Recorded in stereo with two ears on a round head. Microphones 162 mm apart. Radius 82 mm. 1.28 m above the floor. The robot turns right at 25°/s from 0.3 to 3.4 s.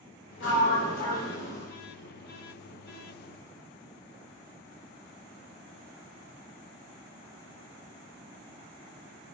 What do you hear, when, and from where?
0.4 s a sliding door: 70° left, 2.5 m; by 1.7 s 100° left, 2.5 m